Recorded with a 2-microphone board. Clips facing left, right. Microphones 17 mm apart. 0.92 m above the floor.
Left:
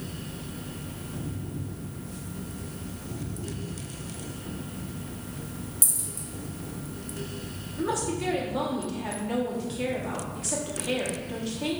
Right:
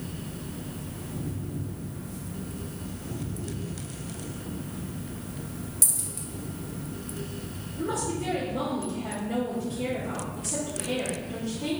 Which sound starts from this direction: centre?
A dropped coin, at 5.8 s.